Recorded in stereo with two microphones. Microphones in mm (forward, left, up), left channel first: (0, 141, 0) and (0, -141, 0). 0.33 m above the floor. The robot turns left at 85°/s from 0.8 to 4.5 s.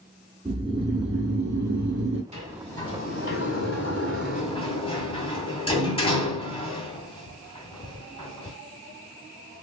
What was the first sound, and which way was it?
Snoring, 20° right.